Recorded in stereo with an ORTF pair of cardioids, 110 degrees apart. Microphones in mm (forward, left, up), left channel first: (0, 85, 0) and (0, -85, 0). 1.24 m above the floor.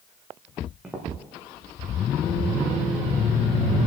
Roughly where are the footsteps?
Ahead.